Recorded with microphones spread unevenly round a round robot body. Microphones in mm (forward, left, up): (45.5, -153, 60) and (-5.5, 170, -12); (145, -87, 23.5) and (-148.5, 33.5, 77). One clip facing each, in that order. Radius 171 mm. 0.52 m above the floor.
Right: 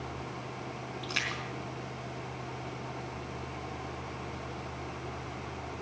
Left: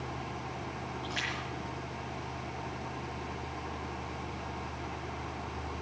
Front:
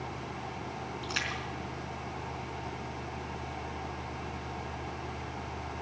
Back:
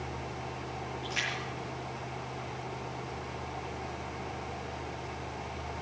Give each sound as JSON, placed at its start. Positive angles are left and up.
{"t": 1.0, "sound": "a splash", "azimuth_deg": -50, "distance_m": 4.0}